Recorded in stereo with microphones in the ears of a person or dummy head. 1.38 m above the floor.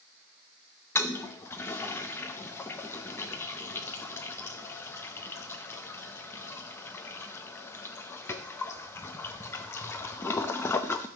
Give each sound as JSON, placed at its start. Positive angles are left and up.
{"t": 0.9, "sound": "a toilet flushing", "side_deg": 10, "distance_m": 0.7}